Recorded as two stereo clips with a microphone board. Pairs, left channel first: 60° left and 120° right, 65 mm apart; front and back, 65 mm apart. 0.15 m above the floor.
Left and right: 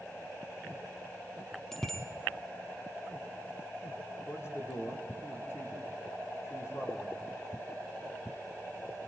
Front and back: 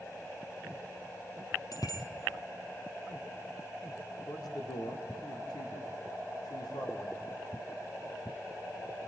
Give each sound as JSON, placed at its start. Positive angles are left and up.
{"t": 1.7, "sound": "a bicycle bell", "azimuth_deg": -25, "distance_m": 3.5}
{"t": 4.3, "sound": "a man speaking", "azimuth_deg": 10, "distance_m": 6.0}